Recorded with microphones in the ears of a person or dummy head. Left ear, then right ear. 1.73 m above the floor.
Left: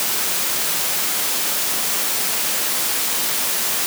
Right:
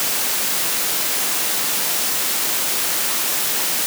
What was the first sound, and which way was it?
Only background noise.